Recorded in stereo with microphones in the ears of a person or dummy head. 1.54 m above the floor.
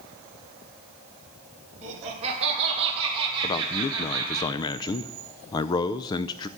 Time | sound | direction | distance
1.8 | laughter | 35° right (ahead or behind) | 3.5 m
3.4 | a man speaking | 20° left (ahead or behind) | 0.6 m